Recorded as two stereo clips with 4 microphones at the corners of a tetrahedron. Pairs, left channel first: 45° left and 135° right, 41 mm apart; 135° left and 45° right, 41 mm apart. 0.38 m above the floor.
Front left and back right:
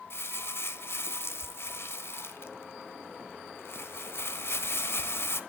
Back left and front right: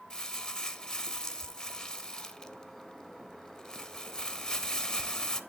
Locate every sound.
0.1 s crumpling: 65° left, 0.9 m